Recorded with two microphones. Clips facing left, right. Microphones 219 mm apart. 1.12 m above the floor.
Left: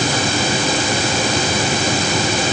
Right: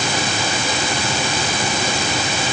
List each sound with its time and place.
Only background noise.